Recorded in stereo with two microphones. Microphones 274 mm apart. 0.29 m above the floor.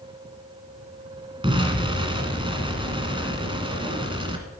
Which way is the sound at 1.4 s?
20° right (ahead or behind).